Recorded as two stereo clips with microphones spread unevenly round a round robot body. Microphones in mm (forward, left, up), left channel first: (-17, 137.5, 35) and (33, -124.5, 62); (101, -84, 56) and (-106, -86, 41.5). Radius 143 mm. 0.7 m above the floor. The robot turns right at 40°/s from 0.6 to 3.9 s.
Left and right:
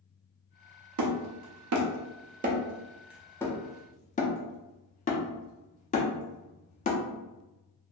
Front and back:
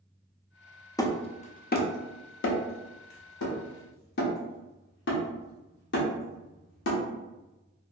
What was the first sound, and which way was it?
Hammering, 75° right.